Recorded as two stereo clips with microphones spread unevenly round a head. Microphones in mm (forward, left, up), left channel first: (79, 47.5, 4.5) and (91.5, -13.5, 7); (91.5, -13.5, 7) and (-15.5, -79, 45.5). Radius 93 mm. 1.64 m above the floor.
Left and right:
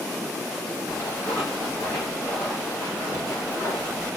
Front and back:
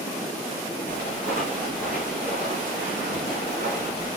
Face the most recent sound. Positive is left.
turn(degrees=-145)